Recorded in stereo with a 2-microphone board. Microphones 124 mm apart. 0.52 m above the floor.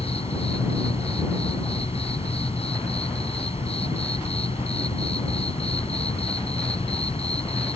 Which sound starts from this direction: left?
An insect, at 0.0 s.